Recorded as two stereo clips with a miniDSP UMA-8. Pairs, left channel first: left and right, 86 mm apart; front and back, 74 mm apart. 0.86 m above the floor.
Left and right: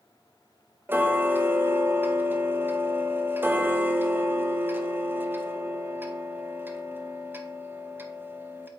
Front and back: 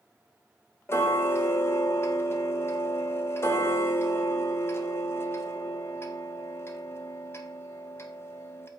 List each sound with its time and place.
0.9 s ticking: 35° right, 0.8 m